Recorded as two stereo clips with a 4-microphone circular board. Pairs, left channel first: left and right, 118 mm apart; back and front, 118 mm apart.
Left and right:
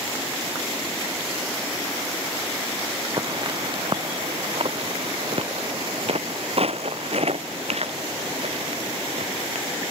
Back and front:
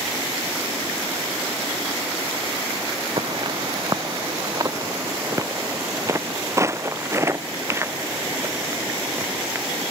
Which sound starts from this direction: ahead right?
Footsteps, at 3.2 s.